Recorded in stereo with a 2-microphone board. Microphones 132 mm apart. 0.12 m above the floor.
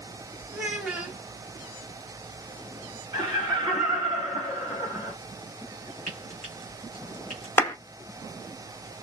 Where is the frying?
85° right, 1.2 m.